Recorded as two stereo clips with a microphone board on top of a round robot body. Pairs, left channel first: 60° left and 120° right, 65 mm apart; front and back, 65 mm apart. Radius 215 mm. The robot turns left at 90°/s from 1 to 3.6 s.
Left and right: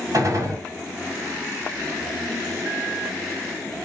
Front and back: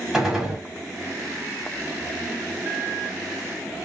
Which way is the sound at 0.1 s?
95° right.